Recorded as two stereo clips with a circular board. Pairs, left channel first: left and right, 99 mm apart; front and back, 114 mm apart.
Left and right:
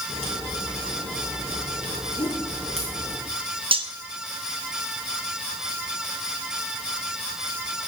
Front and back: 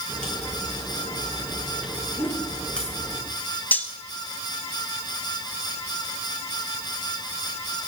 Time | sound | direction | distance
0.1 | a crack | 80° right | 6 m
2.2 | a whoosh | 65° left | 2.5 m
3.7 | cutlery clinking | 75° right | 1.0 m